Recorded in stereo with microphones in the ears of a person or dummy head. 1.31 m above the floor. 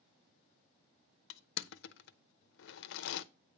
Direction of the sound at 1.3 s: 60° left (ahead or behind).